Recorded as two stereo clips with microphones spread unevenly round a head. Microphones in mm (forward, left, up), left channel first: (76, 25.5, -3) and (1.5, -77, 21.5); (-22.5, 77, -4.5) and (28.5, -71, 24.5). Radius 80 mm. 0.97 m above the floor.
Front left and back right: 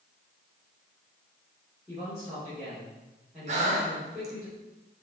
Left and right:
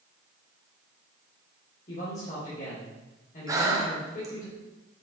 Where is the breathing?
145° right, 1.1 m.